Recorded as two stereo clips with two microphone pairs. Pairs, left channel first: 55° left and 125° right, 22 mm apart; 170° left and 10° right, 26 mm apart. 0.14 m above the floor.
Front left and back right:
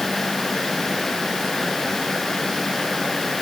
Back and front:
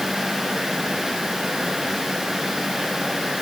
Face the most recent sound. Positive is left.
No sound to turn to.